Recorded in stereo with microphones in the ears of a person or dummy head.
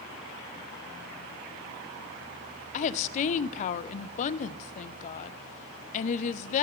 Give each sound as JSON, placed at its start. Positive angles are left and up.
{"t": 2.7, "sound": "a woman speaking", "side_deg": 40, "distance_m": 0.5}